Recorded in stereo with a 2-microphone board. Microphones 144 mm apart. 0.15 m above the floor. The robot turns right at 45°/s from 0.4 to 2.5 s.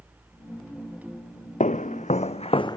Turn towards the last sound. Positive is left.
turn(degrees=25)  # may be behind; listen again after turning